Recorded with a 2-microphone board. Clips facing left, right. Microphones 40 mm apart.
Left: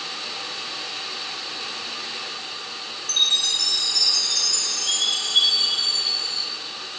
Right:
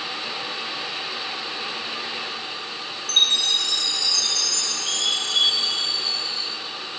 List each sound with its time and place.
3.1 s a chime: 60° right (ahead or behind), 3.5 m